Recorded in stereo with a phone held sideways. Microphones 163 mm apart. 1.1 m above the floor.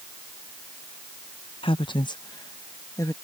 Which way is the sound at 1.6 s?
35° left (ahead or behind).